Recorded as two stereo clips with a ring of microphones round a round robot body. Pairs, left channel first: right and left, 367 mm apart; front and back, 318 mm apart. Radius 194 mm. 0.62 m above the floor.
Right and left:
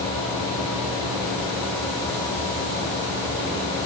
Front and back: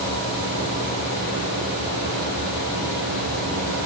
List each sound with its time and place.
Only background noise.